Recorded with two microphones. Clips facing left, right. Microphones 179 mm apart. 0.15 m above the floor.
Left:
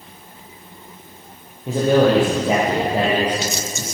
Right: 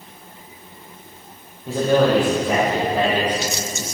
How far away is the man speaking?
About 3.5 m.